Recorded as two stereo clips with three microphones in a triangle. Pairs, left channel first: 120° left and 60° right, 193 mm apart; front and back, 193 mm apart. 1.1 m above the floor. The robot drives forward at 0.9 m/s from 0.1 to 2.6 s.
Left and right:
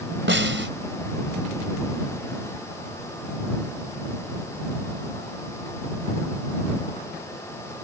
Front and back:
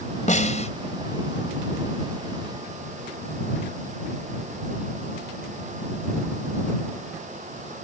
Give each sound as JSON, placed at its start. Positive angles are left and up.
{"t": 0.3, "sound": "a snare drum", "azimuth_deg": -50}